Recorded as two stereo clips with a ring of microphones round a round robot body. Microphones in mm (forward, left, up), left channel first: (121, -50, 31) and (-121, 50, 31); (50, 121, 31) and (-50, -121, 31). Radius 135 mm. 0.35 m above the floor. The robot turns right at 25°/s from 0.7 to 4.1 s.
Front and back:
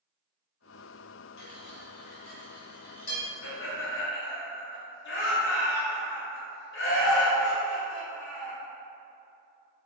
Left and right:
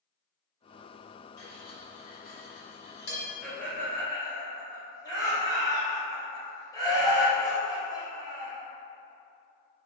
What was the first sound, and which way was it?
Cutlery clinking, 10° right.